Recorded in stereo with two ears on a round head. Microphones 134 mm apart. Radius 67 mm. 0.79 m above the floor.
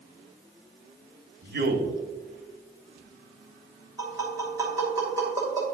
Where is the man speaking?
70° right (ahead or behind), 1.9 m.